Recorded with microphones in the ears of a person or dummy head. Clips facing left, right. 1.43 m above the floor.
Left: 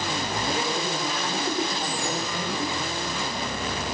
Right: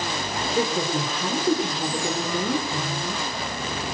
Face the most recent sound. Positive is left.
turn(degrees=-80)